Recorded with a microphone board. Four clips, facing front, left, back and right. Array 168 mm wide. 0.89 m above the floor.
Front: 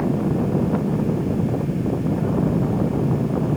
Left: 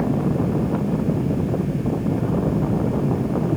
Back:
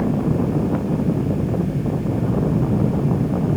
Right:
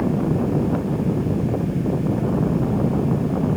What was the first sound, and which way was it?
Only background noise.